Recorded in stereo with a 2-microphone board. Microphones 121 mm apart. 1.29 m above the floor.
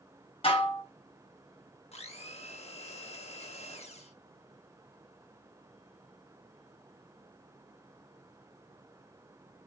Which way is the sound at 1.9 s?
60° left (ahead or behind).